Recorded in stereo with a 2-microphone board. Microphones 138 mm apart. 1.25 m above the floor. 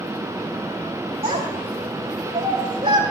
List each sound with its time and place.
1.2 s a child speaking: 40° right (ahead or behind), 2 m